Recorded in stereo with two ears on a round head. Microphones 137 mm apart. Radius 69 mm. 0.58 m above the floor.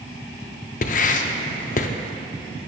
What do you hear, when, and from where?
0.8 s writing: 55° left (ahead or behind), 0.5 m